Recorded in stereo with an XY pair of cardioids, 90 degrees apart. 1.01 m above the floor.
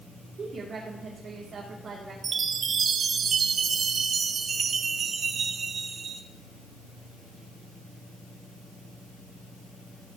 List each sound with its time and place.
0.4 s a woman speaking: 55° right, 2.5 m
2.2 s a chime: 60° right, 1.2 m